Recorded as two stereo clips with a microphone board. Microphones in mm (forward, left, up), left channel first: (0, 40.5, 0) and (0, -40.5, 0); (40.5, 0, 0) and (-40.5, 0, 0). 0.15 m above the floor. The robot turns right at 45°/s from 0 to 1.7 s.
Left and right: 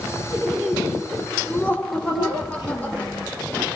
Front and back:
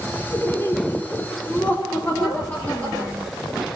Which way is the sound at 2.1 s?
105° left.